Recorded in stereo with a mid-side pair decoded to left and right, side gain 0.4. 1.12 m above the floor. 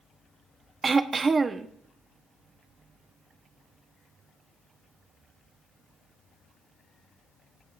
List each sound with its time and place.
0.8 s throat clearing: 40° right, 0.9 m